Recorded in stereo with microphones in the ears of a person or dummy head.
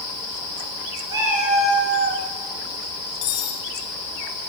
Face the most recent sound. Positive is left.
turn(degrees=55)  # may be behind; listen again after turning